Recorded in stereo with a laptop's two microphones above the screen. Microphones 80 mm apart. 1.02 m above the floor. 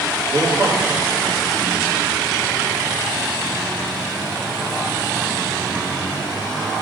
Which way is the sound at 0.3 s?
70° right (ahead or behind).